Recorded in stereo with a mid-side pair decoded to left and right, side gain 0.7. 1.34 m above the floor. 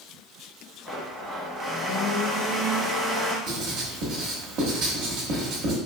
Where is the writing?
65° right, 1.2 m.